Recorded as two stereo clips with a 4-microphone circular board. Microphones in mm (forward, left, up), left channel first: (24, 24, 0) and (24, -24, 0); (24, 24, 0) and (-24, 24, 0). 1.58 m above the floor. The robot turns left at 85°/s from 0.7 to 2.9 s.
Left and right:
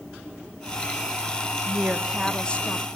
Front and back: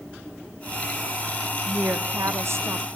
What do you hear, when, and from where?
1.7 s a woman speaking: 130° right, 0.9 m; by 2.9 s 125° left, 0.9 m